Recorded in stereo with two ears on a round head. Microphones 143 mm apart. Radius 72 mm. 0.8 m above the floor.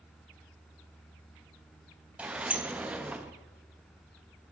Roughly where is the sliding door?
Centre.